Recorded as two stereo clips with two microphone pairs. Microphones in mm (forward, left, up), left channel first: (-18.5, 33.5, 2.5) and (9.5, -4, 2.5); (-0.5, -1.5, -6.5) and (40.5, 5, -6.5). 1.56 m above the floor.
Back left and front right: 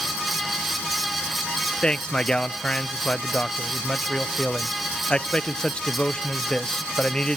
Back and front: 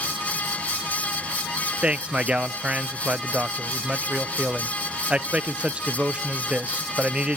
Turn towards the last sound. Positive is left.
turn(degrees=65)